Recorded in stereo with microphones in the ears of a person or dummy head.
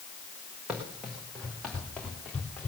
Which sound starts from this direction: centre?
Running footsteps, at 0.7 s.